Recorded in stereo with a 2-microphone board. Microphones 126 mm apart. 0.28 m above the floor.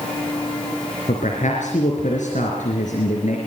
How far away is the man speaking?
About 4 m.